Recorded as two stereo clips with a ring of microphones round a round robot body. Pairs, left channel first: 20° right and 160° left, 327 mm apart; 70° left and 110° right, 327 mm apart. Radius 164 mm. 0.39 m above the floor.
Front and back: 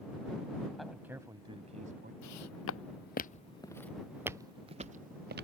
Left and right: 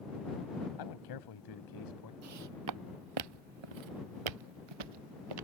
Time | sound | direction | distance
0.8 | a man speaking | 65° left | ?
2.2 | footsteps | 65° right | ?